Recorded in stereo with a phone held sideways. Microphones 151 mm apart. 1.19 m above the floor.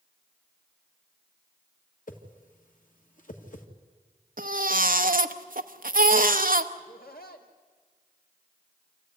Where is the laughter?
90° left, 2.5 m.